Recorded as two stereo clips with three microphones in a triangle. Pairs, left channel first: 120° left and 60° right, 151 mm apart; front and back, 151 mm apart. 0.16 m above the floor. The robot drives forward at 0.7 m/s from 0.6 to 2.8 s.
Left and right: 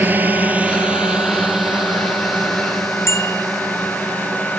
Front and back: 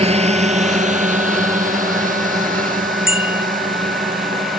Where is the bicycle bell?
165° right.